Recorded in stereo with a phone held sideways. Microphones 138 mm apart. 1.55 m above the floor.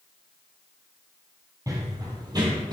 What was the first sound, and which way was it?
Running footsteps, 25° right (ahead or behind).